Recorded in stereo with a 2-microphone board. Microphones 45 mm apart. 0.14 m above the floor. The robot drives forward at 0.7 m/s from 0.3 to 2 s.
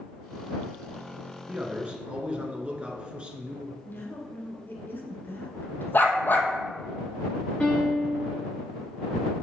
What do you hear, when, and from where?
1.5 s a man speaking: 30° right (ahead or behind), 1.3 m; by 3.8 s 25° right (ahead or behind), 1.5 m
3.9 s a woman speaking: 50° left (ahead or behind), 1.9 m
5.9 s a dog barking: 50° left (ahead or behind), 1.1 m
7.6 s a piano: 20° left (ahead or behind), 3 m